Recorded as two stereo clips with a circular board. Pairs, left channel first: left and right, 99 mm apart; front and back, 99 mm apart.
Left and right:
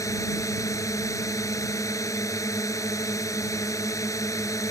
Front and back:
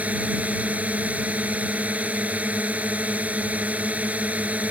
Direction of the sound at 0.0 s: 115° left.